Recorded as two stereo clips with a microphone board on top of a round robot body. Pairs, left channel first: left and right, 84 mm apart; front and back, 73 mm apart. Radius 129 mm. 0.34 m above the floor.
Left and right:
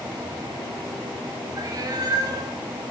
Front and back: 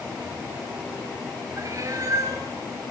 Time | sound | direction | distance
1.6 | a cat meowing | 135° right | 5 m